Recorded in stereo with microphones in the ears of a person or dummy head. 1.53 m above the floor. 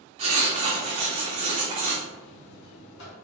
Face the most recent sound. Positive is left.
turn(degrees=70)  # may be behind; listen again after turning